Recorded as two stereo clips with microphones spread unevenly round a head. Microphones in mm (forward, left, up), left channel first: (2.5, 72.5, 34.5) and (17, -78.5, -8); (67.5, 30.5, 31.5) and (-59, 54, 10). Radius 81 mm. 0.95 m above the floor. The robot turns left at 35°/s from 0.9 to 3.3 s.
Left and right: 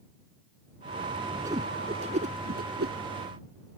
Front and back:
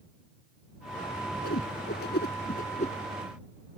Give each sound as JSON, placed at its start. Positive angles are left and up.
{"t": 1.4, "sound": "a whoosh", "azimuth_deg": -10}